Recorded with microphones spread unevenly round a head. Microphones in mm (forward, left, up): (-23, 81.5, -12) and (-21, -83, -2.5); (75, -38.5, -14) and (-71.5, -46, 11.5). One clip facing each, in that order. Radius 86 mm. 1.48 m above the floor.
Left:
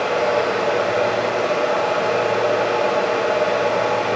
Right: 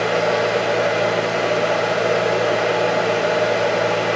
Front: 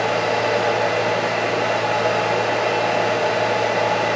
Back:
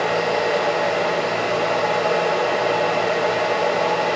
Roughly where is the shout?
I don't hear a shout.